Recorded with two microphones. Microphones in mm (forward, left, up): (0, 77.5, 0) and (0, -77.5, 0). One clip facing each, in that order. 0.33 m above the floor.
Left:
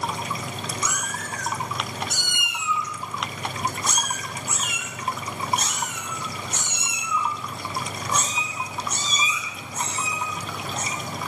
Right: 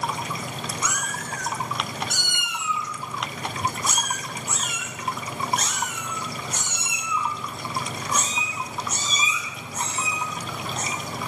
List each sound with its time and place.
0.8 s a cat meowing: 75° right (ahead or behind), 1.2 m; by 10.9 s 35° left (ahead or behind), 4.5 m